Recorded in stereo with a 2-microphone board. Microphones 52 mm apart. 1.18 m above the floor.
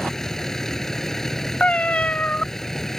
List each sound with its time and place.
0.0 s a vehicle: 5° left (ahead or behind)
1.6 s a cat meowing: 25° left (ahead or behind)